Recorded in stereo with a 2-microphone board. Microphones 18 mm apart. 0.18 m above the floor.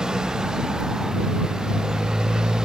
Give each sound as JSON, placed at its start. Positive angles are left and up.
{"t": 0.0, "sound": "a motorcycle", "side_deg": -45}